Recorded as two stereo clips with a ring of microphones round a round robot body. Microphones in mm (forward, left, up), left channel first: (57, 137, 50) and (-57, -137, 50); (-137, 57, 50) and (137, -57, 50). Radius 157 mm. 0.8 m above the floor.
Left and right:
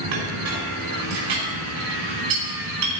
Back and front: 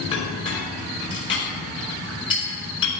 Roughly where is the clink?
Behind right.